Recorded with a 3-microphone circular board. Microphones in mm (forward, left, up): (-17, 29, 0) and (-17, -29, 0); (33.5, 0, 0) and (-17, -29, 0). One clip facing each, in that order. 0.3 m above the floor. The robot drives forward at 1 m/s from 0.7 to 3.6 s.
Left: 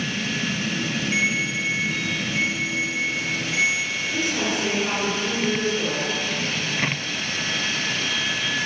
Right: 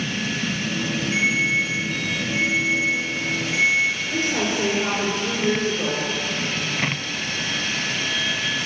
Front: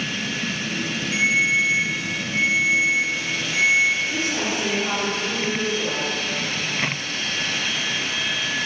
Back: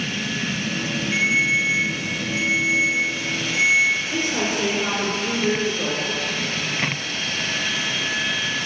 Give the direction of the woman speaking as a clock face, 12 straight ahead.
5 o'clock.